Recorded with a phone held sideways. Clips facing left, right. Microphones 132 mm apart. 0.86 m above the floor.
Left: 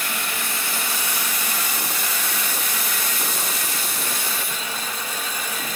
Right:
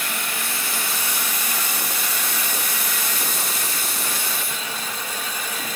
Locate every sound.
Only background noise.